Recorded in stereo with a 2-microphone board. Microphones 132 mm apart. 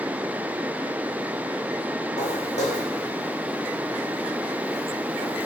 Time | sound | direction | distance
2.2 | footsteps | 60° left (ahead or behind) | 3 m